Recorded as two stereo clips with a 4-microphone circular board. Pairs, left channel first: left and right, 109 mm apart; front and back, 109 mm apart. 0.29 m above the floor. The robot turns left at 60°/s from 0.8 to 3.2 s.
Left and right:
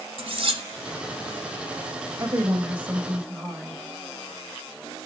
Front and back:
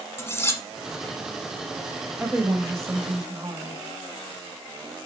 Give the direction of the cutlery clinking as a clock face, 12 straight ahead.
2 o'clock.